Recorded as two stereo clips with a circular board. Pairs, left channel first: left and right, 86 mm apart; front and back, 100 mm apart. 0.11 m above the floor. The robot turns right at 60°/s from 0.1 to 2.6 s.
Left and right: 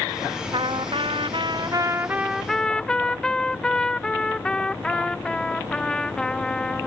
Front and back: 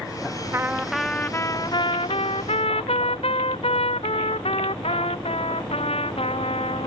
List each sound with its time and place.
0.5 s a trumpet: 115° right; by 6.9 s 10° left